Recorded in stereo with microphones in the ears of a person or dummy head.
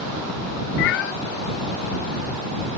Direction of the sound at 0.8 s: 65° left (ahead or behind).